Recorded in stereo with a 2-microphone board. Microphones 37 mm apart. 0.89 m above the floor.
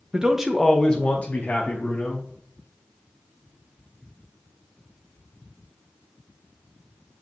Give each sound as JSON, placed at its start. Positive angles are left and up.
{"t": 0.1, "sound": "a man speaking", "side_deg": -25, "distance_m": 0.6}